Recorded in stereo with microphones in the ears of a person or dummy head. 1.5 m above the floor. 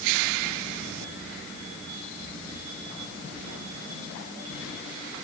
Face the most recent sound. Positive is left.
No sound to turn to.